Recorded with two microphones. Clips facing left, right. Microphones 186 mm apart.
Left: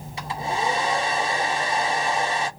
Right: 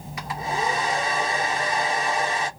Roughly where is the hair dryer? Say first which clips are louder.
Left 1 dB; left.